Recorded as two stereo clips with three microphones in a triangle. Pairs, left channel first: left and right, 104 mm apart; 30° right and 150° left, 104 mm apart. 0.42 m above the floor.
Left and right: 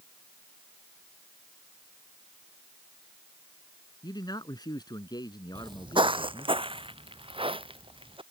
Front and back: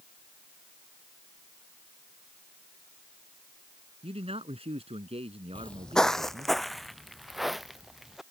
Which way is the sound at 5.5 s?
100° right.